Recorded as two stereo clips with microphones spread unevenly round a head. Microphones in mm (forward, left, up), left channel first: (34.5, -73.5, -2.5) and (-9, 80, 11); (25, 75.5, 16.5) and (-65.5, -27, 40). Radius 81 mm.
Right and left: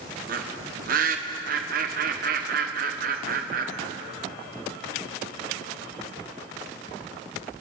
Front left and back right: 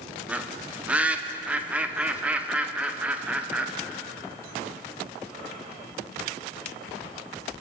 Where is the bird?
145° left, 0.9 m.